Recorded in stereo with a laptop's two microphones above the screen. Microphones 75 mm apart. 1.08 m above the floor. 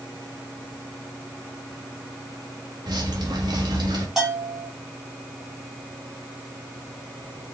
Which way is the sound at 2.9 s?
70° right (ahead or behind).